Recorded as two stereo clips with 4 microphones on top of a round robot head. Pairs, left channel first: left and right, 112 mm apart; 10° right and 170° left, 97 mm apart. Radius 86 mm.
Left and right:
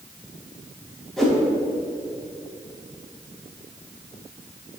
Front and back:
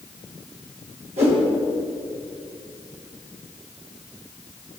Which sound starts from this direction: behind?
A whoosh, at 1.2 s.